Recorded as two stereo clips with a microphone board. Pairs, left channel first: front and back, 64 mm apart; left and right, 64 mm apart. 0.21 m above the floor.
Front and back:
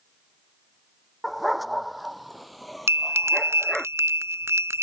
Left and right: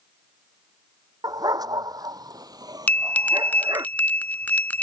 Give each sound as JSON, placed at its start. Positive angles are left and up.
{"t": 1.2, "sound": "a dog barking", "azimuth_deg": -90}
{"t": 2.9, "sound": "a bell", "azimuth_deg": 150}